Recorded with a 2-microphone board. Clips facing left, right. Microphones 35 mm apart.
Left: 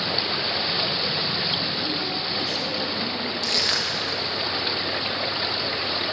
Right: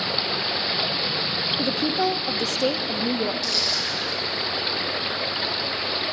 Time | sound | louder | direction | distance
1.6 | a woman speaking | right 4 dB | 70° right (ahead or behind) | 0.5 m
3.4 | crushing | left 1 dB | 55° left (ahead or behind) | 1.6 m